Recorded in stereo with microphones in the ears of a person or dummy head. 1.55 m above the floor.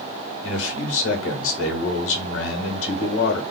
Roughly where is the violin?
I don't hear a violin.